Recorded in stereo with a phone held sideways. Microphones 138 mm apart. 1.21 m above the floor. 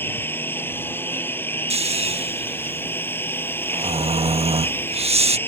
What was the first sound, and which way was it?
A lawn mower, 15° left (ahead or behind).